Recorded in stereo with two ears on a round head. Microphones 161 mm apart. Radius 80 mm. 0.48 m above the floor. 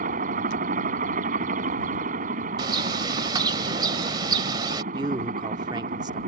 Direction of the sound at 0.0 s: 45° right (ahead or behind).